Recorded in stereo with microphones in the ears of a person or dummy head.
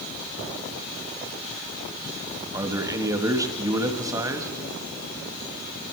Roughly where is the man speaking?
Right.